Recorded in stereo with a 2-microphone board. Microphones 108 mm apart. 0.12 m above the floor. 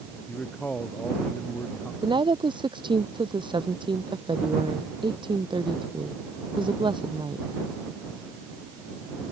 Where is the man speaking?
10° left (ahead or behind); by 1.9 s 15° left (ahead or behind).